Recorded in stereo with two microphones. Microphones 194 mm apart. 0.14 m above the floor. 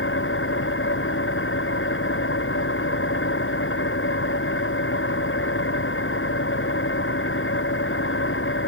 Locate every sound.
0.0 s an engine running: 85° left